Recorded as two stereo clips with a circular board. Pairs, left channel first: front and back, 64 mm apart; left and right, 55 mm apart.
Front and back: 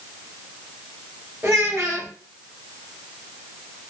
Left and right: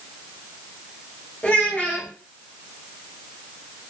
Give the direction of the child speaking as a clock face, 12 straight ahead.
7 o'clock.